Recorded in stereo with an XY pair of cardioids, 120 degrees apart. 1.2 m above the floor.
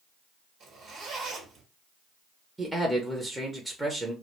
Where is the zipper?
65° right, 1.1 m.